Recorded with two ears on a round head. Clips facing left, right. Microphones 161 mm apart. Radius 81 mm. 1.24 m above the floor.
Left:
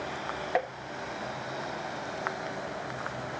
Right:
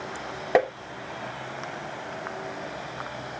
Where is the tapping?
60° right (ahead or behind).